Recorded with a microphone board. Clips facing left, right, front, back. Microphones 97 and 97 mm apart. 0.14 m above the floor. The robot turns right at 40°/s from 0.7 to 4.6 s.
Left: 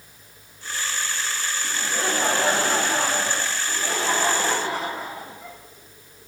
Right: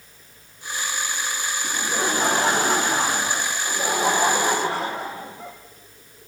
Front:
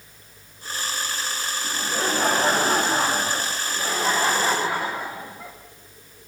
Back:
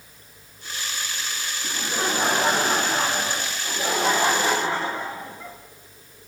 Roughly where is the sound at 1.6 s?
Behind right.